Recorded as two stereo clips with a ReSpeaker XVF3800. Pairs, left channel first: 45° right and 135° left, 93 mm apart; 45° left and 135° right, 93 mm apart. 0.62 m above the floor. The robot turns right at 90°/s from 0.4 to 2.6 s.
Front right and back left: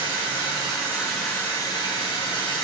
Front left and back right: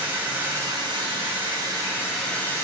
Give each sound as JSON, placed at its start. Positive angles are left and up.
{"t": 0.0, "sound": "running water", "azimuth_deg": 155, "distance_m": 3.0}